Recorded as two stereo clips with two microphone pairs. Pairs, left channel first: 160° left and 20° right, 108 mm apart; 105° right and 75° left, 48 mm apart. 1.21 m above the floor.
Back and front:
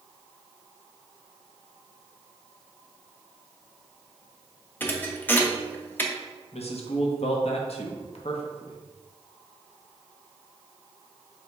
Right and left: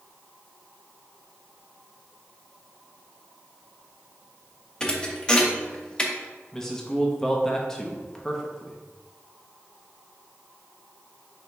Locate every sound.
4.8 s a thud: 140° right, 0.5 m
6.5 s a man speaking: straight behind, 0.6 m